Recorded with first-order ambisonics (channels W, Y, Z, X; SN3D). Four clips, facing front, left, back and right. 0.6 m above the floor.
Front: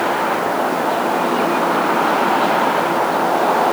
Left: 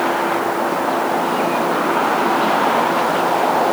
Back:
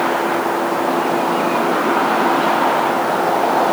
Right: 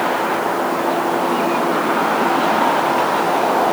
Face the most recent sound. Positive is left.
No sound to turn to.